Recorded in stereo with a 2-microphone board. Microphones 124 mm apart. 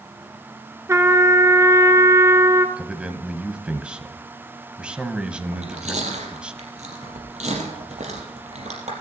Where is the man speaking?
10° right (ahead or behind), 1.3 m.